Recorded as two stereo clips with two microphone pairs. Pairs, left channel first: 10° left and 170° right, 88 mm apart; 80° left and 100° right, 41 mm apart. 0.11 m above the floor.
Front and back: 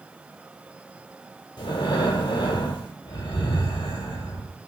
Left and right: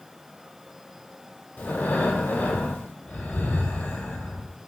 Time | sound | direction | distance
1.6 | breathing | 35° left | 0.6 m